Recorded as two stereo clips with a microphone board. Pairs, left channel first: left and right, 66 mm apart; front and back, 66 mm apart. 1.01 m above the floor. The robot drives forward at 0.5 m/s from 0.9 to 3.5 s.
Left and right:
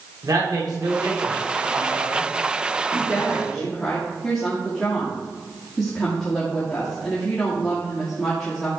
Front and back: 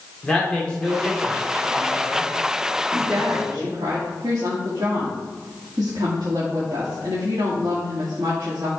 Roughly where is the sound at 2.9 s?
Behind.